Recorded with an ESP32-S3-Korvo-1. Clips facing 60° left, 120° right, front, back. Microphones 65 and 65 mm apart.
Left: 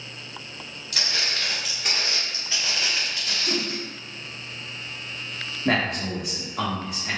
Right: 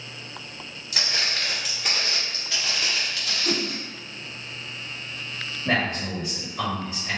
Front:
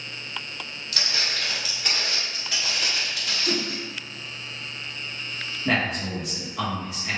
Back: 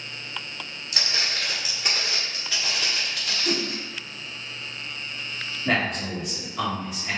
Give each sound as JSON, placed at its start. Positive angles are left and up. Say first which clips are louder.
{"t": 0.9, "sound": "footsteps", "louder": "right 1 dB, even", "azimuth_deg": -160, "distance_m": 1.6}
{"t": 3.5, "sound": "a whoosh", "louder": "right 2 dB, back 1 dB", "azimuth_deg": -135, "distance_m": 0.8}
{"t": 5.7, "sound": "a man speaking", "louder": "left 1 dB, even", "azimuth_deg": 90, "distance_m": 1.4}